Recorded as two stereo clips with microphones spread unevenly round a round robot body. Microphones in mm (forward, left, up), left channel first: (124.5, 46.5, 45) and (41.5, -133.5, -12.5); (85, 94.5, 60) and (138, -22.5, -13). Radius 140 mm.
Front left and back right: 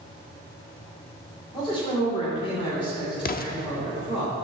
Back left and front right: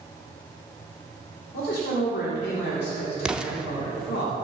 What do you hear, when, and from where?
1.5 s a man speaking: 140° left, 2.5 m
3.2 s an explosion: 15° left, 0.8 m